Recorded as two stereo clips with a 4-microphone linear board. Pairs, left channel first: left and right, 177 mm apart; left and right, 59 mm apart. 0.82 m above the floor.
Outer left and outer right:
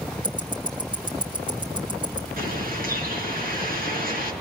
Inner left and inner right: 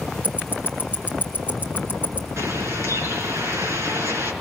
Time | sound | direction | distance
0.2 | ticking | 30° right (ahead or behind) | 2 m
2.4 | a bird | 60° right (ahead or behind) | 5.5 m